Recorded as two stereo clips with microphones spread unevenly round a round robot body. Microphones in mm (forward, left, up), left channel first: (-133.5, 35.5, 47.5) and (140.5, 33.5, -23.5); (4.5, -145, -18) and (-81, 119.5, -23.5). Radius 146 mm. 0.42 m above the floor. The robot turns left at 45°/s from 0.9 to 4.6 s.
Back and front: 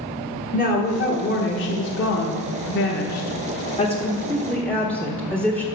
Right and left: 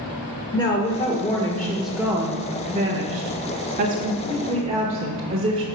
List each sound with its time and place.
0.5 s a woman speaking: 125° right, 1.3 m; by 5.7 s 70° left, 1.3 m